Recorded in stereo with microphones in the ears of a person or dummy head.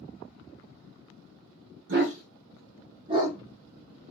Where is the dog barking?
60° right (ahead or behind), 1.0 m; by 4.1 s 10° right (ahead or behind), 1.5 m.